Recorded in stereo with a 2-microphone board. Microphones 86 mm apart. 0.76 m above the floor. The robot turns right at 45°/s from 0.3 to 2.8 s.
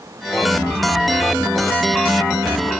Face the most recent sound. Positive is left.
No sound to turn to.